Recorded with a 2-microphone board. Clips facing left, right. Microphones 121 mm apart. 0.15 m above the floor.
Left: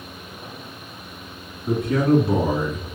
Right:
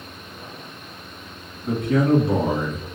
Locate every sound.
1.6 s a man speaking: 5° left (ahead or behind), 1.3 m